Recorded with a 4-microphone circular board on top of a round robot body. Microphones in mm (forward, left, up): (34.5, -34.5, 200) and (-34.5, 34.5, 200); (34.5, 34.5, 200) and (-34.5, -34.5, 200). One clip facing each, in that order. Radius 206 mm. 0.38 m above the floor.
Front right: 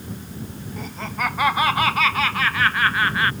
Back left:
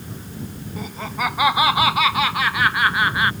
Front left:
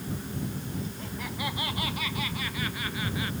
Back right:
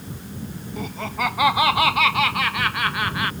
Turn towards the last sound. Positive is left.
turn(degrees=-150)